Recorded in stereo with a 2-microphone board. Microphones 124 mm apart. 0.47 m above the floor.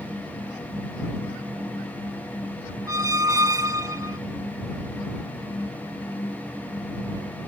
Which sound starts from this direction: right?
A squeak, at 2.9 s.